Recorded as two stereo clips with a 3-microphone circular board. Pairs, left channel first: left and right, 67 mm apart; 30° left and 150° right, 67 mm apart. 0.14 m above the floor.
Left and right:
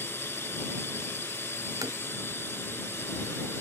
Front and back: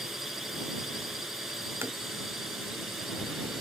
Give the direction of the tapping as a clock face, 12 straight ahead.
3 o'clock.